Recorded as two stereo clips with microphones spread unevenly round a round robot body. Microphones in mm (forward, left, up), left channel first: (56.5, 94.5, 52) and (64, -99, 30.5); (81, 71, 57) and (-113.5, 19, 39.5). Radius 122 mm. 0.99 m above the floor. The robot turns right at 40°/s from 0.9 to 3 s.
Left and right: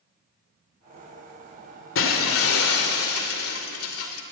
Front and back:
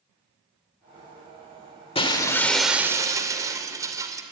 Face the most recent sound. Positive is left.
turn(degrees=120)